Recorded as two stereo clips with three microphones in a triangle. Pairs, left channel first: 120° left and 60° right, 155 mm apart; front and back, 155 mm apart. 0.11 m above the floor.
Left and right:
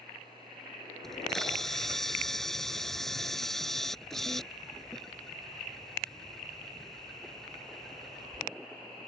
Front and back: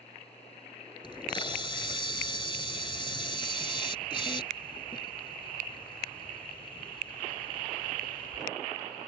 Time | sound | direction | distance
1.0 | a camera shutter | 35° left | ?